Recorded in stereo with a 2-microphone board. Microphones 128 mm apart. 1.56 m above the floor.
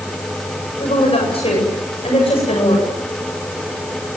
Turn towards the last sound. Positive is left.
turn(degrees=55)  # may be behind; listen again after turning